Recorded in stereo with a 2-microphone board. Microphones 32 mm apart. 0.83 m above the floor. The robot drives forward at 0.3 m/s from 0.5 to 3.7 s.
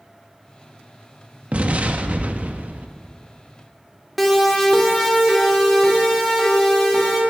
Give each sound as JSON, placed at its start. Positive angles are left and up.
{"t": 1.5, "sound": "an explosion", "side_deg": -40, "distance_m": 1.2}
{"t": 4.2, "sound": "a siren", "side_deg": 5, "distance_m": 2.0}